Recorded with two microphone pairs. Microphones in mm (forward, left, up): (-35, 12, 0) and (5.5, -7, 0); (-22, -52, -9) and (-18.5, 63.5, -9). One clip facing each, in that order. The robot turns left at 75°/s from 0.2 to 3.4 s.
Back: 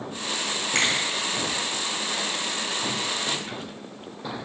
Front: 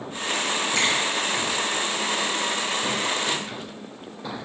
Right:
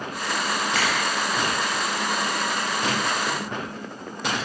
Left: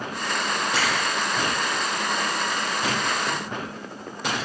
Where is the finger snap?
150° left, 1.8 m; by 0.9 s 135° left, 1.8 m.